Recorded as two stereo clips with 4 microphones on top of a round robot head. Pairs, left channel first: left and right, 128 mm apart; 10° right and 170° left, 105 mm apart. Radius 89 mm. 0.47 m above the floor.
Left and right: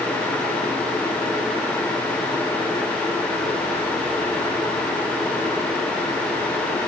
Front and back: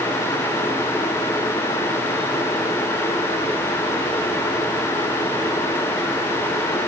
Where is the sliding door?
No sliding door in this recording.